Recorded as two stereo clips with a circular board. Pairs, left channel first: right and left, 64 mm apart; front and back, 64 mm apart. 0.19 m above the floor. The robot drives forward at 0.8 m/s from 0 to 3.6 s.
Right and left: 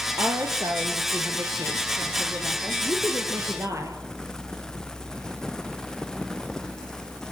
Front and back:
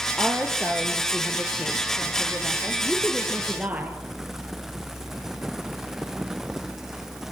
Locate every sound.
0.2 s a woman speaking: 75° left, 4 m; by 4.0 s 115° left, 4.5 m